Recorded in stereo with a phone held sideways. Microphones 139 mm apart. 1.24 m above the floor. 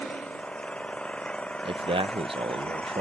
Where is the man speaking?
40° right (ahead or behind).